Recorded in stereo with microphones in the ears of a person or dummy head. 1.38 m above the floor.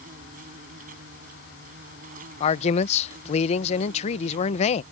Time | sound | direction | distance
0.0 | an insect | 50° right (ahead or behind) | ?
2.4 | a man speaking | 40° left (ahead or behind) | ?